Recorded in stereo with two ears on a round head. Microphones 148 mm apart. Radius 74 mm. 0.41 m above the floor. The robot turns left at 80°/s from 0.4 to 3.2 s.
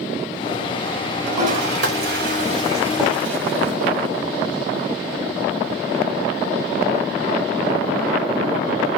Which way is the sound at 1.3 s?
35° right (ahead or behind).